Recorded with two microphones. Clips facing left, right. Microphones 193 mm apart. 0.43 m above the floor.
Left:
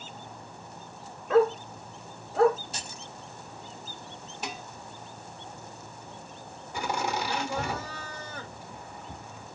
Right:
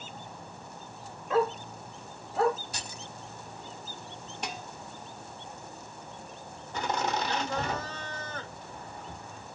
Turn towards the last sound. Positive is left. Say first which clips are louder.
# even
turn(degrees=10)  # may be behind; listen again after turning